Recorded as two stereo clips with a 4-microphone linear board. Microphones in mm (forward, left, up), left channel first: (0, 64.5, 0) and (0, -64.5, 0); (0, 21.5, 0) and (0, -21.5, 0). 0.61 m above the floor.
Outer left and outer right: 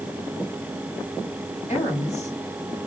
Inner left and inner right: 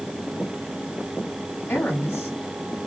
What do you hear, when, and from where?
1.7 s a woman speaking: 65° left (ahead or behind), 6.5 m